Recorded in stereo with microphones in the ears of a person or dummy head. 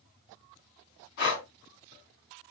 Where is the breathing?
60° left (ahead or behind), 3 m.